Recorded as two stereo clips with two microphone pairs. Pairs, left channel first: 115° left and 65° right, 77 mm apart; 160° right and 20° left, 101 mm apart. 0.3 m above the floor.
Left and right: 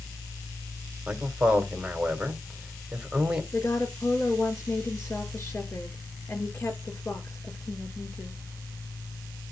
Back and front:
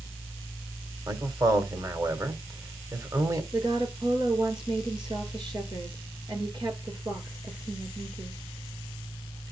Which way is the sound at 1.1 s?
Straight ahead.